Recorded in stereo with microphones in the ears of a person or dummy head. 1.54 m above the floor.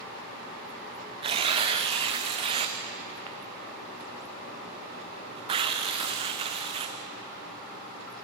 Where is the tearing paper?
40° right (ahead or behind), 0.7 m.